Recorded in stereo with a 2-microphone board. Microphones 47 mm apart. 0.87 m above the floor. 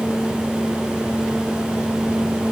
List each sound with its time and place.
Only background noise.